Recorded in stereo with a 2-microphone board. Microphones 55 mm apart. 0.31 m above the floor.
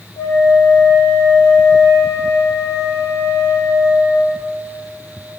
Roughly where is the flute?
Left.